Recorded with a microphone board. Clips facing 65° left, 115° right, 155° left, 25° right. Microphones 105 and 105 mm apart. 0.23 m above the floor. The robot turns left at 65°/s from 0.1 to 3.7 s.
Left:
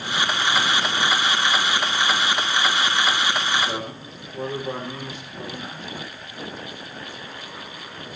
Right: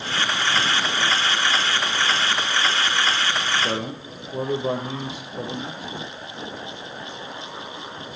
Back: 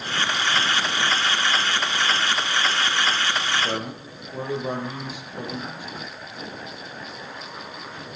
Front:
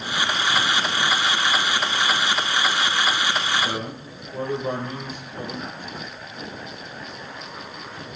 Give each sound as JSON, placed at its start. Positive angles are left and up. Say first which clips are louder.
{"t": 3.6, "sound": "a man speaking", "louder": "right 2 dB, even", "azimuth_deg": -115, "distance_m": 6.5}